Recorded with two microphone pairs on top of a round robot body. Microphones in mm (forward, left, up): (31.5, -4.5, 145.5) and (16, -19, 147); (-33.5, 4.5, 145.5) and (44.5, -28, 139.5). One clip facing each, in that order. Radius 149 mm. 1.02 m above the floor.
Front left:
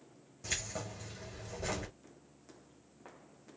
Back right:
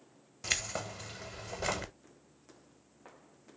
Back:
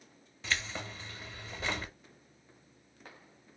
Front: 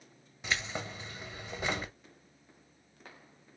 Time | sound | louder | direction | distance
0.4 | keys jangling | back right 5 dB, front 1 dB | 95° right | 0.9 m